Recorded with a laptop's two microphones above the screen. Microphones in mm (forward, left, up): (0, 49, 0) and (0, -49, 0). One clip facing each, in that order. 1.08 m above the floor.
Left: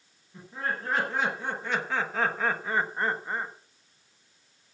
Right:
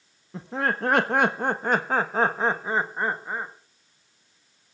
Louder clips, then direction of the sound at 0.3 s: Right 6 dB; 80° right.